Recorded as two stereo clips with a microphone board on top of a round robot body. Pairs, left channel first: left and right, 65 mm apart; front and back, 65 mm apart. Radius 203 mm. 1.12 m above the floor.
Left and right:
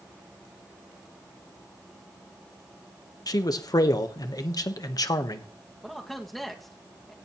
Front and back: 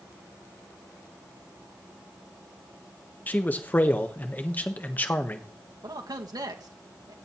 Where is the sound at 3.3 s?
65° left, 1.4 m.